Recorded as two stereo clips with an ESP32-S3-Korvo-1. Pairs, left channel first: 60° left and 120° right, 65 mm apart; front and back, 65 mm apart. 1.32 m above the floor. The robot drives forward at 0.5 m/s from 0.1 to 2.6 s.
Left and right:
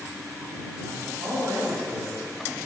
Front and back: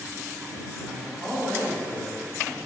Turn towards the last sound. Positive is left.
turn(degrees=-130)